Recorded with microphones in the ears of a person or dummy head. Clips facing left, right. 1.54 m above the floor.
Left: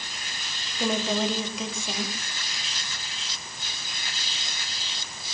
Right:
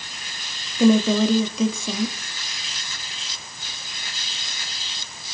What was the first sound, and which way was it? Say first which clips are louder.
A woman speaking: right 10 dB; 85° right.